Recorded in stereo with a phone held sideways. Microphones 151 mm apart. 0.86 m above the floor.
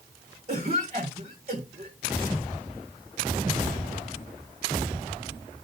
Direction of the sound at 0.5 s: 45° right (ahead or behind).